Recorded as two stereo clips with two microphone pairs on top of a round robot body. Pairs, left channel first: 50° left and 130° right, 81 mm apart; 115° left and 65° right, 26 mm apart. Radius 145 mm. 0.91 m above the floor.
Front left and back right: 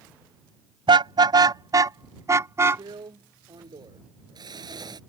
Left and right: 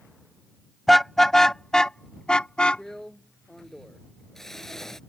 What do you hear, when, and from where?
0.9 s a car horn: 160° right; by 2.8 s 170° left
2.8 s a drill: 165° right